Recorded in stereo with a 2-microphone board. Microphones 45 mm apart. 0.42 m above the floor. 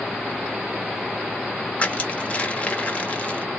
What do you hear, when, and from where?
1.8 s crushing: 30° left (ahead or behind), 1.1 m